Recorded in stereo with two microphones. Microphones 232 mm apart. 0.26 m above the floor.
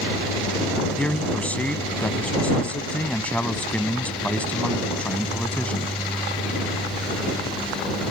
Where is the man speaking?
5° left (ahead or behind).